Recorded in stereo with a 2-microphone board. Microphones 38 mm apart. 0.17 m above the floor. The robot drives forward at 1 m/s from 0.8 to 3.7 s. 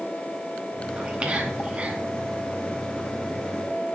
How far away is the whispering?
About 2 m.